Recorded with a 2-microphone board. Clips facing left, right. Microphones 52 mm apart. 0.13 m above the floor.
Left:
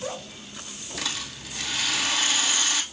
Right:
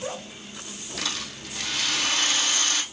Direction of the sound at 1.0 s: Centre (ahead or behind).